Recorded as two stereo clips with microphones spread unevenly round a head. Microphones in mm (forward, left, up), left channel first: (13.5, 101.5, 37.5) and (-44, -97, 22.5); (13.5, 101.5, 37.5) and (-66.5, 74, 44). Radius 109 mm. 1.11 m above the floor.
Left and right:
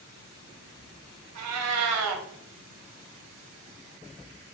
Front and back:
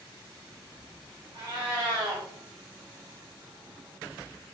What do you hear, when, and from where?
1.4 s a cat meowing: 90° right, 0.6 m